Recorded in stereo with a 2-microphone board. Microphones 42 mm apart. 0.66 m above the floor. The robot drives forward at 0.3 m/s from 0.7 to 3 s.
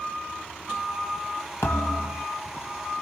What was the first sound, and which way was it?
A thud, 75° left (ahead or behind).